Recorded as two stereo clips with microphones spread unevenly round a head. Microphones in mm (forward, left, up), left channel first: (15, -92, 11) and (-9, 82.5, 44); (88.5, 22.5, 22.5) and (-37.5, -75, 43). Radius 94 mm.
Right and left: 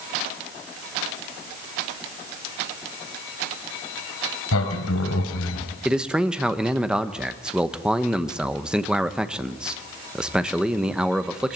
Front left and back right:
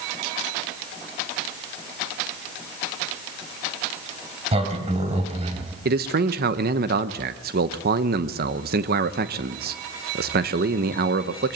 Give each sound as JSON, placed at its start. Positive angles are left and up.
{"t": 4.5, "sound": "a sliding door", "azimuth_deg": -95, "distance_m": 2.5}
{"t": 5.8, "sound": "a man speaking", "azimuth_deg": -170, "distance_m": 0.9}